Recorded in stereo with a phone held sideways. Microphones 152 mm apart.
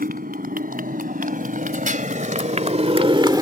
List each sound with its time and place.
0.0 s a motorcycle: 75° right (ahead or behind); by 3.4 s 25° right (ahead or behind)